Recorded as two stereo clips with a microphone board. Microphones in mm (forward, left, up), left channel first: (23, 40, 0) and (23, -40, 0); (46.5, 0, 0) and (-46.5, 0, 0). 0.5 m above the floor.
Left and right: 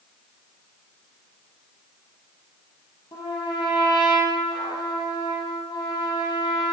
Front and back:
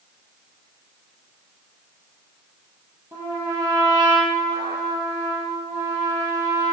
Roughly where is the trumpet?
Behind left.